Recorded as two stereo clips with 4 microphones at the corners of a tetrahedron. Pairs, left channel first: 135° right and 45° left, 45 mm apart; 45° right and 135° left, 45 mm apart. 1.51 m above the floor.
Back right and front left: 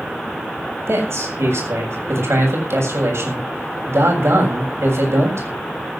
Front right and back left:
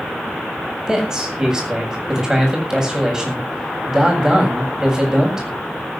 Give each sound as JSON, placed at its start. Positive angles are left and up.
{"t": 0.9, "sound": "a man speaking", "azimuth_deg": 60, "distance_m": 7.5}